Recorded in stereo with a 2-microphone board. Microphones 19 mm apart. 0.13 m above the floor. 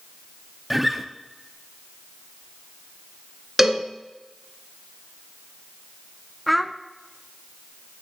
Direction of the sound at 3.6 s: 15° right (ahead or behind).